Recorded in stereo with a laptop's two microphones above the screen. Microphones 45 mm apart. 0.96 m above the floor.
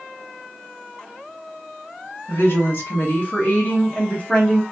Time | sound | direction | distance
2.3 | a woman speaking | 60° left (ahead or behind) | 2 m